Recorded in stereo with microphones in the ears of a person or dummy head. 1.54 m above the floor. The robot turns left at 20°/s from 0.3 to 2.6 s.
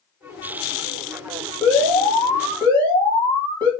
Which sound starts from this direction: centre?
An alarm, at 1.6 s.